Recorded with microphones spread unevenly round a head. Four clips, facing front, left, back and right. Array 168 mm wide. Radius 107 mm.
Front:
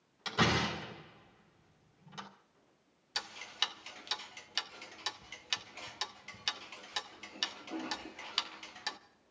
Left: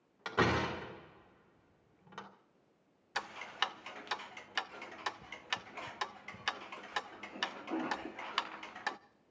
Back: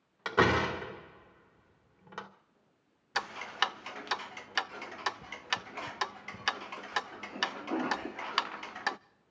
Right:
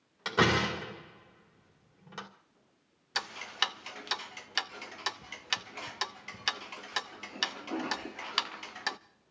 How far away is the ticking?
About 0.6 m.